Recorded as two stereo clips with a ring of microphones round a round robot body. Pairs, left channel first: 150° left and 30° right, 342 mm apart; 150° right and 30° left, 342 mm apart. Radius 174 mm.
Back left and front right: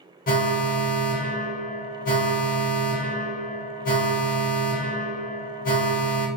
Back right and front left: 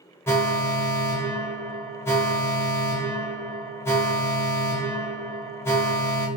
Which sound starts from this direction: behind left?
An alarm, at 0.3 s.